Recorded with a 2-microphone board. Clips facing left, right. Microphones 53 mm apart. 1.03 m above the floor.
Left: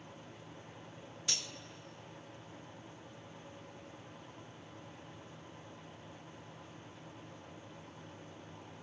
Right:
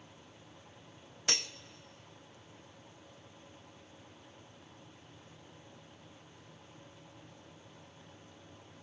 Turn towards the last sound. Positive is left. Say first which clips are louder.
# right 6 dB
turn(degrees=-55)  # may be behind; listen again after turning